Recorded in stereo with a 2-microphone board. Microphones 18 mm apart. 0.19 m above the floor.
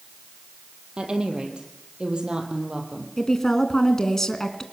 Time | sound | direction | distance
1.0 | a woman speaking | 75° right (ahead or behind) | 4.5 m
3.2 | a woman speaking | 25° left (ahead or behind) | 2.5 m